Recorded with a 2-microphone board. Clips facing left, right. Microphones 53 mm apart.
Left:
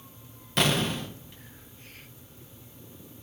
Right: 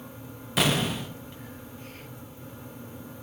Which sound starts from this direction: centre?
An explosion, at 0.6 s.